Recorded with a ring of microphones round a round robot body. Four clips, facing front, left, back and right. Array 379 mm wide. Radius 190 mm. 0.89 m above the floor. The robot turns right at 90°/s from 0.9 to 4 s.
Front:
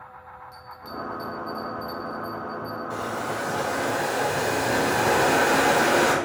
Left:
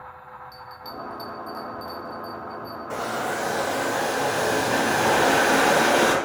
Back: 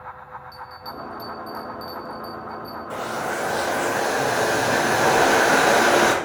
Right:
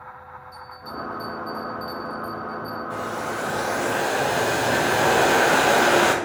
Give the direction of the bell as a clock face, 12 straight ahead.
9 o'clock.